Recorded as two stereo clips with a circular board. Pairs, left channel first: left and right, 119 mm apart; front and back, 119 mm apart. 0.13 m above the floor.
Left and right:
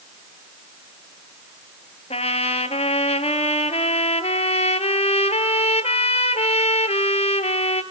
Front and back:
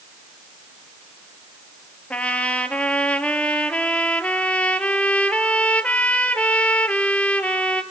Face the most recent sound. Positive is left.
turn(degrees=80)